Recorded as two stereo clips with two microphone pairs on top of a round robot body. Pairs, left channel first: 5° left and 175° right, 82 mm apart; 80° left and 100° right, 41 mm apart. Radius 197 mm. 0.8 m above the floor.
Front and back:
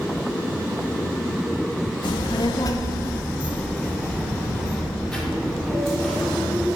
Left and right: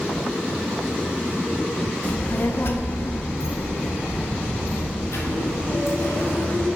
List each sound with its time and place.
2.0 s a child speaking: 30° left, 0.7 m; by 6.7 s 95° left, 2.5 m